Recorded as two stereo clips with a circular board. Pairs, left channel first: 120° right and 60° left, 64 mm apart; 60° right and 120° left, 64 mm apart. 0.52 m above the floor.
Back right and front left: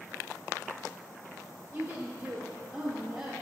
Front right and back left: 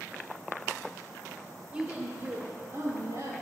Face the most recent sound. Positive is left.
turn(degrees=140)